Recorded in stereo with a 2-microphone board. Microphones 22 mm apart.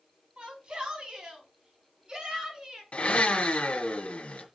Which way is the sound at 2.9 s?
70° left (ahead or behind).